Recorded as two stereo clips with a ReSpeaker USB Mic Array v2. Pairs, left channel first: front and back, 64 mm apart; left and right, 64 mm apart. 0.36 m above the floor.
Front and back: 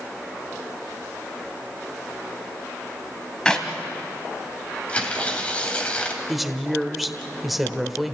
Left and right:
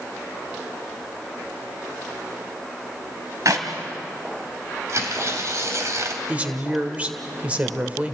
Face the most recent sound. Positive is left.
turn(degrees=-95)